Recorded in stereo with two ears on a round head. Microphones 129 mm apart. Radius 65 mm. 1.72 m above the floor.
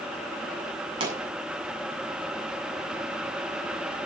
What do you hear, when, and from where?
1.0 s a pop: 35° right (ahead or behind), 8.5 m